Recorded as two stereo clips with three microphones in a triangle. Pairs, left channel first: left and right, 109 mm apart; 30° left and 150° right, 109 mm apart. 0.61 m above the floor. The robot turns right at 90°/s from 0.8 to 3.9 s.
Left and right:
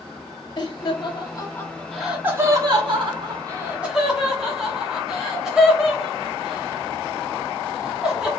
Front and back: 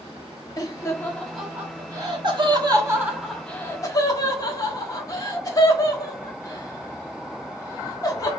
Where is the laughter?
70° left, 1.0 m; by 8.3 s 10° right, 1.0 m.